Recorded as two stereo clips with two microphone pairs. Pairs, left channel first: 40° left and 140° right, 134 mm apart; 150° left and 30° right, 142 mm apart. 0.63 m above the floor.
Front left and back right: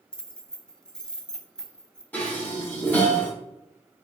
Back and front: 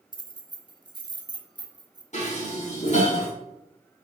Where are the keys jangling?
40° right, 0.6 m.